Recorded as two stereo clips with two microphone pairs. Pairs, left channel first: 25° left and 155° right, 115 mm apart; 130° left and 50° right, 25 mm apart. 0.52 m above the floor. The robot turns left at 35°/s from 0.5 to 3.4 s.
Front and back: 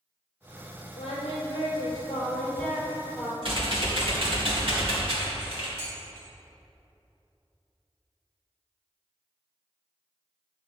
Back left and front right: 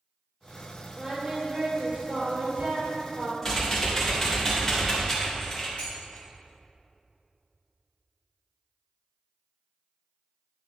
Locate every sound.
1.0 s singing: 10° left, 2 m; by 3.3 s 75° right, 2 m
3.4 s typing on a keyboard: 165° right, 2 m
5.8 s dishes clattering: 170° left, 2.5 m